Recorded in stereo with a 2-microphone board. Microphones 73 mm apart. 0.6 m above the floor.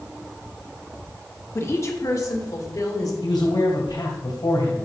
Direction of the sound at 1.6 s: 40° left (ahead or behind).